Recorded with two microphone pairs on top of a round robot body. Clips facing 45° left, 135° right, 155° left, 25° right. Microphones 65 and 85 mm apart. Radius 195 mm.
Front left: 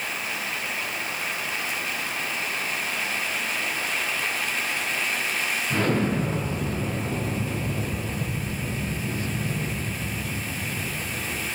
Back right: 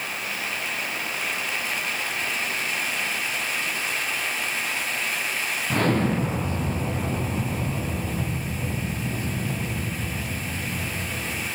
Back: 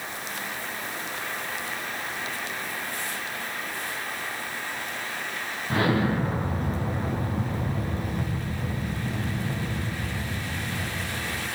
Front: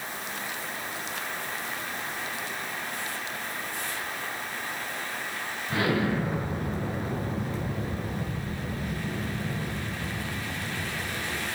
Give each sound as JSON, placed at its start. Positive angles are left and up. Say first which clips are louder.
{"t": 5.7, "sound": "an explosion", "louder": "back right 2 dB, back 2 dB", "azimuth_deg": -150, "distance_m": 6.0}